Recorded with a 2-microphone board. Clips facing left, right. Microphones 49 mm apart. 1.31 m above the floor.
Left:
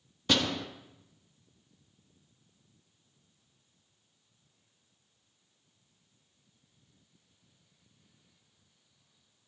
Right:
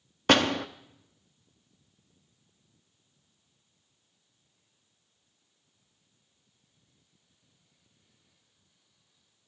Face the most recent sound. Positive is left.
turn(degrees=-55)  # may be behind; listen again after turning